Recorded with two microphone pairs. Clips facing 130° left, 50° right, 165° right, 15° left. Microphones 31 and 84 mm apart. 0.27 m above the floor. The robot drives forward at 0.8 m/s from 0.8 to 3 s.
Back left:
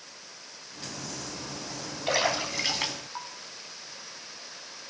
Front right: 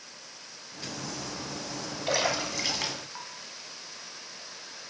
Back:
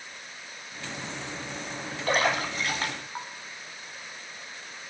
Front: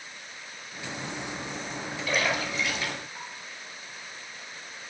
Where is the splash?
160° right, 2.5 m; by 3.3 s 165° right, 3 m.